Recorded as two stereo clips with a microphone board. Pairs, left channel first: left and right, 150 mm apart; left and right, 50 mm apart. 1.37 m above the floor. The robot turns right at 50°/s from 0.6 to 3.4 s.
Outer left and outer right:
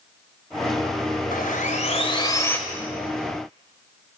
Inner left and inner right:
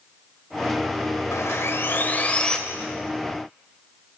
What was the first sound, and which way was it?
Sawing, 105° left.